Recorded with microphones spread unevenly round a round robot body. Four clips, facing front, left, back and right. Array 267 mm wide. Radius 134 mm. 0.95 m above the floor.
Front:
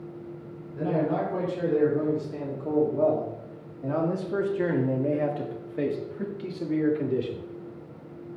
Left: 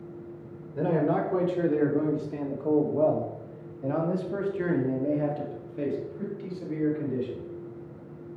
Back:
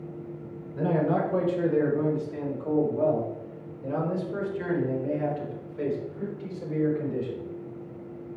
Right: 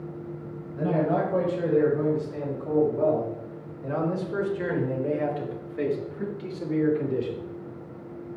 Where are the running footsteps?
No running footsteps in this recording.